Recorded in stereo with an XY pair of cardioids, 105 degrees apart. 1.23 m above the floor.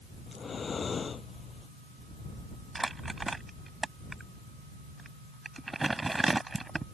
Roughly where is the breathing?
Ahead left.